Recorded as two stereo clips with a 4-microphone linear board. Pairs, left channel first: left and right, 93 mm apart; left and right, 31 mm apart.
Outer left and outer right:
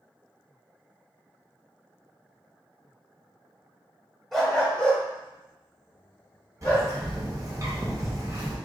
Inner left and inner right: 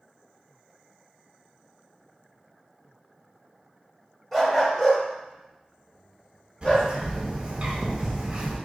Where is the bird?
35° right (ahead or behind), 0.7 m.